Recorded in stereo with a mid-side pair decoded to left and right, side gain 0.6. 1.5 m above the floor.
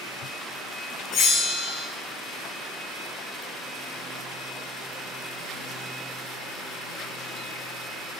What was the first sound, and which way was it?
A bell, 60° left.